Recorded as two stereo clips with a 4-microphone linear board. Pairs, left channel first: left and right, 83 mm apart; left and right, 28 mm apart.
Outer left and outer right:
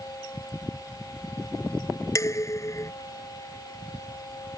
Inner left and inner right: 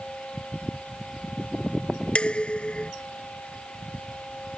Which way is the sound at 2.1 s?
35° left (ahead or behind).